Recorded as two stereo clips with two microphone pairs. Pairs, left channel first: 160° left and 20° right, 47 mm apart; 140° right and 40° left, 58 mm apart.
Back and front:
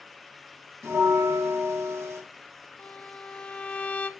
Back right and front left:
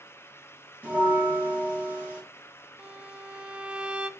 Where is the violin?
105° left, 0.7 m.